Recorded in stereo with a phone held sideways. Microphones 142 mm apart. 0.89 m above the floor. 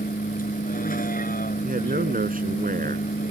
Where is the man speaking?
85° right.